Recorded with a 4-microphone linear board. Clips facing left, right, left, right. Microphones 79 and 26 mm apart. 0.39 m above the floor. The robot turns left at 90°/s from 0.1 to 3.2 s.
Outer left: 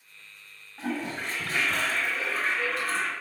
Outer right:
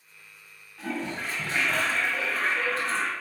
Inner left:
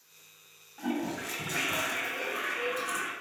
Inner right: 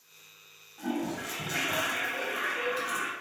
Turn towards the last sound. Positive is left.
turn(degrees=-175)